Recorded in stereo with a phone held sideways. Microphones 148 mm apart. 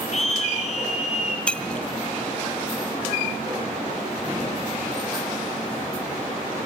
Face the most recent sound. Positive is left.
turn(degrees=10)  # may be behind; listen again after turning